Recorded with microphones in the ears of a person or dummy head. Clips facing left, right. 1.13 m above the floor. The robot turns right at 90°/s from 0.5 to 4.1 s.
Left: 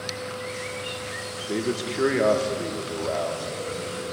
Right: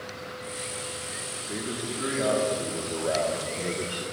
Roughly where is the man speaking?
Ahead left.